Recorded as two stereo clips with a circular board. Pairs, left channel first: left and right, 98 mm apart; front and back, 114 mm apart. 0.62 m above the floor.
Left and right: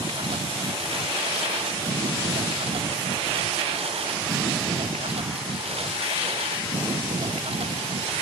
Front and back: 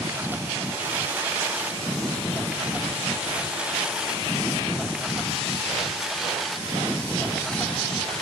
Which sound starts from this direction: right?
A lawn mower, at 0.0 s.